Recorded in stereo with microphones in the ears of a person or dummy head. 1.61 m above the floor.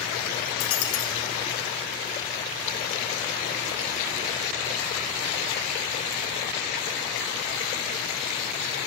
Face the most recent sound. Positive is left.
turn(degrees=75)  # may be behind; listen again after turning